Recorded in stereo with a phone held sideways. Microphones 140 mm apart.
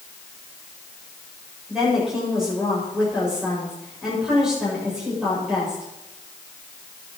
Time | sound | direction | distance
1.7 | a woman speaking | 5° right (ahead or behind) | 7.5 m